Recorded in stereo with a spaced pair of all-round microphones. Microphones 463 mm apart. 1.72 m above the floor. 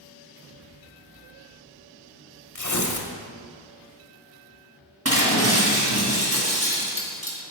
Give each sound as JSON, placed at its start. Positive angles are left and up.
{"t": 2.5, "sound": "tearing paper", "side_deg": 40, "distance_m": 1.0}
{"t": 5.0, "sound": "breaking glass", "side_deg": -30, "distance_m": 1.8}